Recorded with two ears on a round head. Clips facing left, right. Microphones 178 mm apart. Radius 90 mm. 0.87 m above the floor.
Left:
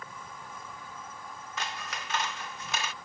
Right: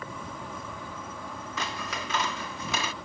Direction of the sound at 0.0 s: 60° right (ahead or behind).